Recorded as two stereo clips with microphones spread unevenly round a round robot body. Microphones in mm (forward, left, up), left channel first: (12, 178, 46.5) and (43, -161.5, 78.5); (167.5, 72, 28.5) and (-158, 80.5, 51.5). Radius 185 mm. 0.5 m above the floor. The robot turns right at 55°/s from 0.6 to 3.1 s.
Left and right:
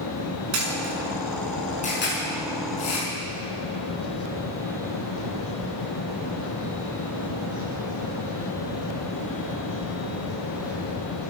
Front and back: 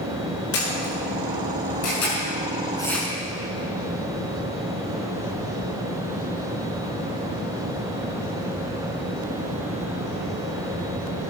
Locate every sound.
0.5 s a camera shutter: 45° right, 6 m; by 3.1 s 95° left, 6 m